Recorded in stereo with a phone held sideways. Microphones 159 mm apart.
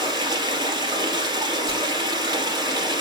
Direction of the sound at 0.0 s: 25° right (ahead or behind).